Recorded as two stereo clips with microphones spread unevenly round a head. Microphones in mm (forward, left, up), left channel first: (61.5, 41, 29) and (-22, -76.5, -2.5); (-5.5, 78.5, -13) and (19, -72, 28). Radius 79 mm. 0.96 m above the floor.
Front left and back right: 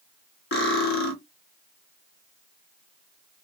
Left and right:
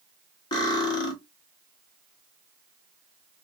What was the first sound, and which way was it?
Cutlery clinking, 35° left.